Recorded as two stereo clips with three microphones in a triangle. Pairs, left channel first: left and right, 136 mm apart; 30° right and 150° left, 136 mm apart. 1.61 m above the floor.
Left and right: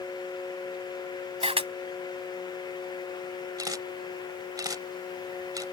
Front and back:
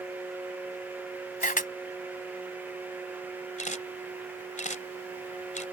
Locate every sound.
1.4 s a camera shutter: 45° right
3.6 s a camera shutter: 30° right